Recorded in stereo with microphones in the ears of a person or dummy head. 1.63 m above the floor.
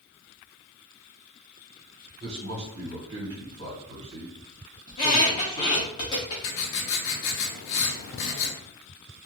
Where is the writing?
75° left (ahead or behind), 0.6 m.